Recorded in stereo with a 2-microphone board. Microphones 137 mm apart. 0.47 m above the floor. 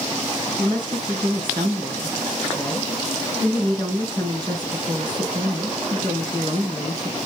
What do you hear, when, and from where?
0.6 s a woman speaking: 35° right (ahead or behind), 4 m